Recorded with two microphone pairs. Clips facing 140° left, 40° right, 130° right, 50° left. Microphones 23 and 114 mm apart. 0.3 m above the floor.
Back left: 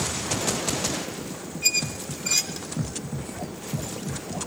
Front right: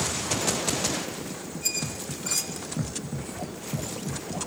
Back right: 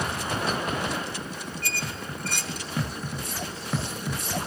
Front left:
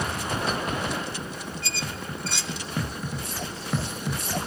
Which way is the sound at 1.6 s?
165° right.